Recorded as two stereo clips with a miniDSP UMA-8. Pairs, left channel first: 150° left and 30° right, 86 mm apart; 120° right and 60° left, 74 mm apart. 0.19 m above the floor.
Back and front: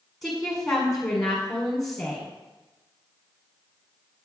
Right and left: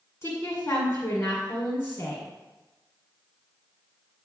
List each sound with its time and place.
0.2 s a woman speaking: 120° right, 1.8 m